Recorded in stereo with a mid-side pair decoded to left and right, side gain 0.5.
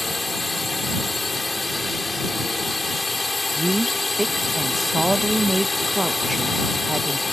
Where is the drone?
20° left.